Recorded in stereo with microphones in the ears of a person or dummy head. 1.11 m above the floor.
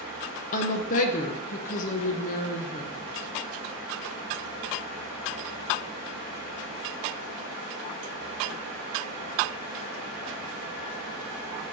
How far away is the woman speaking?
About 0.7 m.